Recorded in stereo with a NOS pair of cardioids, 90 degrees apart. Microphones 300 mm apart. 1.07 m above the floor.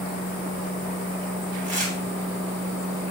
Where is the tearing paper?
25° right, 1.3 m.